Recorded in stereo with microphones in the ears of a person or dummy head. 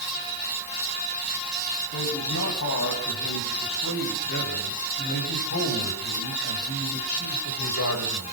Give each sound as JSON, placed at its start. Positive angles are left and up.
{"t": 1.9, "sound": "a man speaking", "side_deg": 65, "distance_m": 9.5}